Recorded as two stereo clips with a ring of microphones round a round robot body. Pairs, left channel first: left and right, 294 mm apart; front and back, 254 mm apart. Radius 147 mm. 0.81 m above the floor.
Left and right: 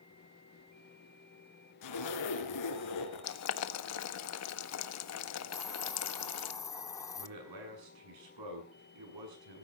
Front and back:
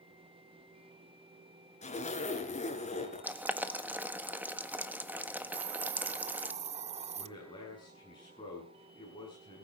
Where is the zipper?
65° left, 3.5 m.